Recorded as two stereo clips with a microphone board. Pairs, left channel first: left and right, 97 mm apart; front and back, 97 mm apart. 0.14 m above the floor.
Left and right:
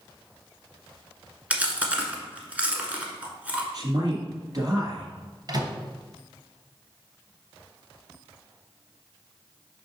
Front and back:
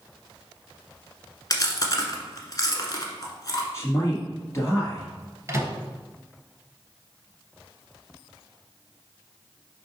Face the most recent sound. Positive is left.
turn(degrees=-120)